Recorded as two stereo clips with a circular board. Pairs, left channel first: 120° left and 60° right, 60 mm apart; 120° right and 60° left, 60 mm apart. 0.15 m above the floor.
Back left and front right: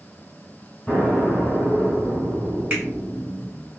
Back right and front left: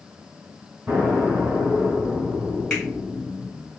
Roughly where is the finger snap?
Ahead right.